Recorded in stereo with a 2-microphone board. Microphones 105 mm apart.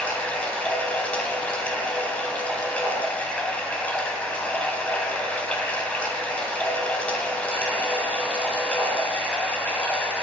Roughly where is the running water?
Centre.